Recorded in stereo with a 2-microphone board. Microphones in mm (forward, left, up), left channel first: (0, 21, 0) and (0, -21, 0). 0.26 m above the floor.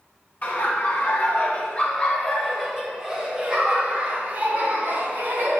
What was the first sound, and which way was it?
Laughter, 45° left (ahead or behind).